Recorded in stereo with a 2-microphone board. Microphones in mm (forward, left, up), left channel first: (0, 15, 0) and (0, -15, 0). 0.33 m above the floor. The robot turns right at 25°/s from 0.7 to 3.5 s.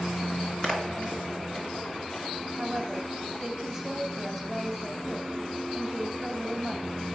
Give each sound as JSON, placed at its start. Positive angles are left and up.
{"t": 0.6, "sound": "a splash", "side_deg": 25, "distance_m": 2.0}
{"t": 2.6, "sound": "a woman speaking", "side_deg": -20, "distance_m": 1.2}